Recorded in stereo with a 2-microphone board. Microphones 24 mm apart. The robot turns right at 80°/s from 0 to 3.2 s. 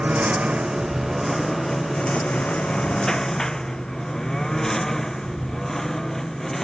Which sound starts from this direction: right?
A lawn mower, at 0.0 s.